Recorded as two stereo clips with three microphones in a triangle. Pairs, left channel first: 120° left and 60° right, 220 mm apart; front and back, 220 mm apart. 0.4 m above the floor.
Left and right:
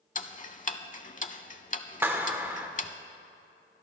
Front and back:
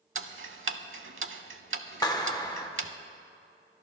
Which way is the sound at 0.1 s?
170° left.